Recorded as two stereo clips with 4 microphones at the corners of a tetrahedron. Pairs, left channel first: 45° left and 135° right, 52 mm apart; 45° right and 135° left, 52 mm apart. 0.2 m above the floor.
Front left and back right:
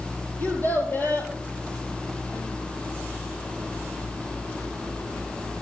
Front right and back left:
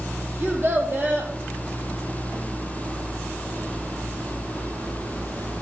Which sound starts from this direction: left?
A child speaking, at 0.4 s.